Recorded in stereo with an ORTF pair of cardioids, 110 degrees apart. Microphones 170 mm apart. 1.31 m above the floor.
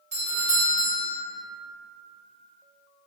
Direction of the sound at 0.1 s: 50° right.